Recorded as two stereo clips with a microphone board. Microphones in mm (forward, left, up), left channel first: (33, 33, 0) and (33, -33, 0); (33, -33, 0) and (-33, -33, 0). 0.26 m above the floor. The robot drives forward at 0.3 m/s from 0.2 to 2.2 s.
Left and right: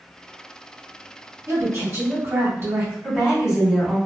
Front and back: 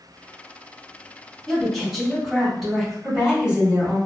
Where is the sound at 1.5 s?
80° right, 1.6 m; by 2.9 s 95° right, 1.5 m.